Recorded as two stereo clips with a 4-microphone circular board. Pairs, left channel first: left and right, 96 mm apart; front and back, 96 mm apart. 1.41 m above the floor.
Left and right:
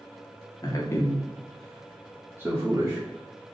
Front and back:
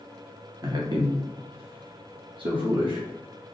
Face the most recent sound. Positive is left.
turn(degrees=-140)